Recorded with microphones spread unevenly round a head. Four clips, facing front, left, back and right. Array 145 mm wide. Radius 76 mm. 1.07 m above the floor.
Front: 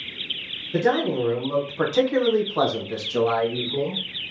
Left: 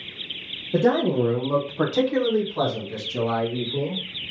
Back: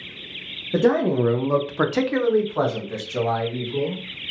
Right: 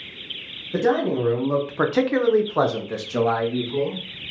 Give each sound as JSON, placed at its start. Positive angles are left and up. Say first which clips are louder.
{"t": 0.7, "sound": "a man speaking", "louder": "left 1 dB, back 3 dB", "azimuth_deg": 155, "distance_m": 0.8}